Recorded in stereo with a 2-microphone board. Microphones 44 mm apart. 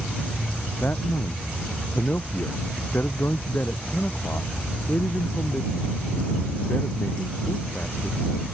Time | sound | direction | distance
0.8 | a man speaking | 50° left (ahead or behind) | ?